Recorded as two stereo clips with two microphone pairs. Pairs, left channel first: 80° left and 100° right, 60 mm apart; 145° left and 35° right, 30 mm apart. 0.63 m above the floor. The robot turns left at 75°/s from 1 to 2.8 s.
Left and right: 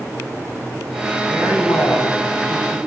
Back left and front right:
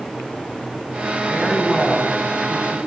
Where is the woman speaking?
110° left, 5.5 m; by 2.8 s 5° right, 5.5 m.